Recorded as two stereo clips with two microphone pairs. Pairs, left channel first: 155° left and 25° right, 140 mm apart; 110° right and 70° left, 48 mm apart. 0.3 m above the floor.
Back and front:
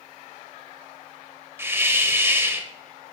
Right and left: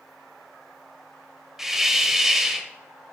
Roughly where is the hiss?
Ahead.